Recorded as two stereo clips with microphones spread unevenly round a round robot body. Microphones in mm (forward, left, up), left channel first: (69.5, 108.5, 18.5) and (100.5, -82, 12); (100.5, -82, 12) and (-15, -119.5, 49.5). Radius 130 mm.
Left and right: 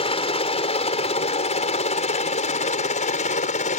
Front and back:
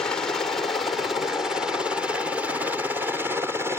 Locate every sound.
0.0 s a helicopter: 70° left; by 3.8 s 115° left